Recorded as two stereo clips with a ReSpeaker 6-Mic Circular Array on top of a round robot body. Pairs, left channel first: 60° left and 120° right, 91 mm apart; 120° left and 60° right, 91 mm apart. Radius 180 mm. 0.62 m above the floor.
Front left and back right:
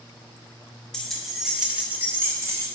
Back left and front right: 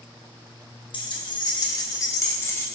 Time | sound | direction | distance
0.9 | keys jangling | 145° left | 1.4 m